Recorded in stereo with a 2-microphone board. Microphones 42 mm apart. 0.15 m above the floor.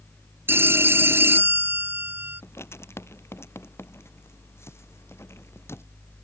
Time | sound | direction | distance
0.5 | a phone ringing | 65° right (ahead or behind) | ?
2.4 | writing | 80° left | ?